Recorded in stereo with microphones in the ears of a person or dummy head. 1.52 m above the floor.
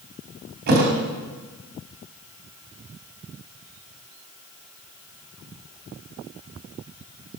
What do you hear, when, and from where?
0.7 s a thud: 55° right (ahead or behind), 3.5 m